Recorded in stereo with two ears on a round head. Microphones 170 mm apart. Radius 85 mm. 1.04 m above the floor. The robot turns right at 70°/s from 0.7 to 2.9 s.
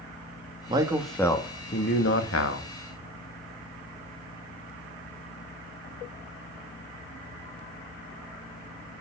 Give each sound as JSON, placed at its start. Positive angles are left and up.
{"t": 0.7, "sound": "a man speaking", "azimuth_deg": -25, "distance_m": 1.5}